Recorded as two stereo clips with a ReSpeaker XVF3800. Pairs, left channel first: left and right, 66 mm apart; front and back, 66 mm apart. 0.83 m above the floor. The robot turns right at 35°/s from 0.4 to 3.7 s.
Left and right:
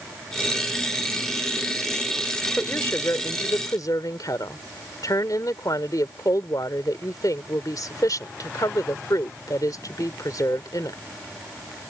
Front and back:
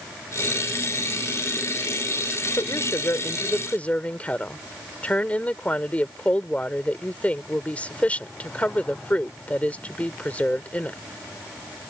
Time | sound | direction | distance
2.6 | a woman speaking | 30° left | ?